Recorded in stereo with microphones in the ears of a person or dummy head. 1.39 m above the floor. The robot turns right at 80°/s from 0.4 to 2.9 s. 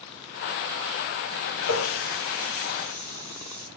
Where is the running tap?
80° left, 4.5 m; by 3.7 s 20° right (ahead or behind), 4.5 m.